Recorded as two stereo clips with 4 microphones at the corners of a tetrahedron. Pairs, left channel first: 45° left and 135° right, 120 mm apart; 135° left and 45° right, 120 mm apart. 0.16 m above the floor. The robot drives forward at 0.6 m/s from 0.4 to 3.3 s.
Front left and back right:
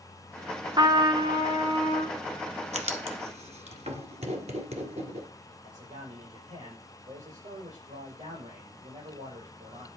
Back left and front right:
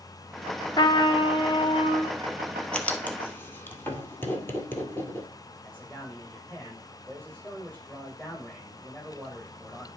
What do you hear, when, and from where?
0.8 s a trumpet: straight behind, 0.8 m
2.7 s writing: 145° right, 1.2 m; by 5.3 s 155° right, 1.5 m
5.6 s a man speaking: 145° right, 6 m